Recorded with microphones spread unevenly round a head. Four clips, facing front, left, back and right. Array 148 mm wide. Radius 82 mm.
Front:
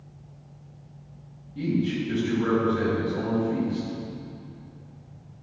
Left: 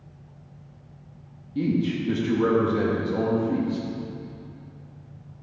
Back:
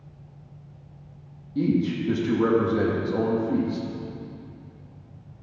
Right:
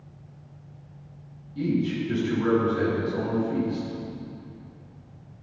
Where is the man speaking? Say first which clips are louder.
Left 1 dB, back 3 dB; 145° left, 2 m.